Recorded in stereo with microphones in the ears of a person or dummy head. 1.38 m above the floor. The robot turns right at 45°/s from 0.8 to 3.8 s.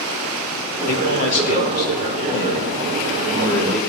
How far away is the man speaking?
About 3 m.